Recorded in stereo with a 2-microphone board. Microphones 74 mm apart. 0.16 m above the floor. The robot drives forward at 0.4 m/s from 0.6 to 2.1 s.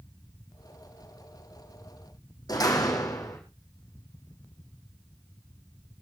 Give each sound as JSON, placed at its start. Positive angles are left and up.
{"t": 2.5, "sound": "a door slam", "side_deg": 60, "distance_m": 5.5}